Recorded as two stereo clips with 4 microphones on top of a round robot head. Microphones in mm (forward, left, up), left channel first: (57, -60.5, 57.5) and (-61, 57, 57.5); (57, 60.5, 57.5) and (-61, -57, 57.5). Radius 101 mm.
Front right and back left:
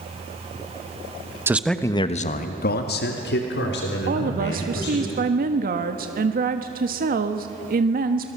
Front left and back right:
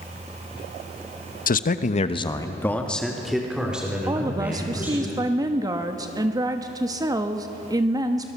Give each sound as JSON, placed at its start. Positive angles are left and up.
{"t": 1.5, "sound": "a man speaking", "azimuth_deg": 60, "distance_m": 1.2}
{"t": 4.1, "sound": "a woman speaking", "azimuth_deg": 160, "distance_m": 1.4}